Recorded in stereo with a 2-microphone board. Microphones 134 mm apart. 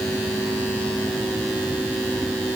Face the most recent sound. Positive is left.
No sound to turn to.